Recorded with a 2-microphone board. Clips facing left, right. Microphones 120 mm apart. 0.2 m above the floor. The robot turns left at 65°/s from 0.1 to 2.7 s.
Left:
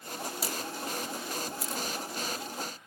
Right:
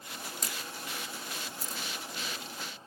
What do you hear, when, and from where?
0.4 s a camera shutter: 5° left (ahead or behind); by 1.8 s 80° left